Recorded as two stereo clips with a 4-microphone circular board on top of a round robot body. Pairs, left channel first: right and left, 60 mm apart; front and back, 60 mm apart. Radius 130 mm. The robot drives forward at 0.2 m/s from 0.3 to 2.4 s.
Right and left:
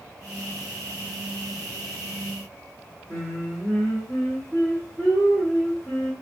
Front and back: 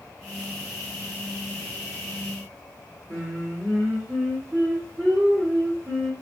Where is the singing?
160° right, 1.8 m.